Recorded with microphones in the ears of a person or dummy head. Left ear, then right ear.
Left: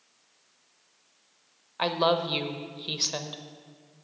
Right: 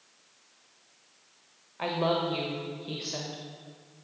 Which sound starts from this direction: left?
A woman speaking, at 1.8 s.